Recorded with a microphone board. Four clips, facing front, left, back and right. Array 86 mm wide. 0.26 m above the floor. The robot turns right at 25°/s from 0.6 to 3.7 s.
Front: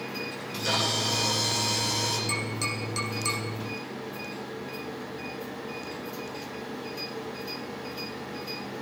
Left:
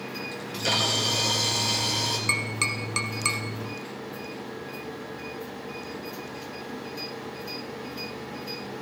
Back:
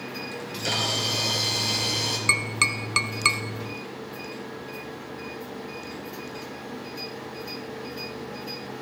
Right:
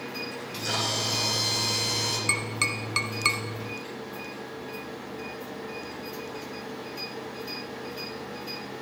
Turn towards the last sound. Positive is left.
turn(degrees=-150)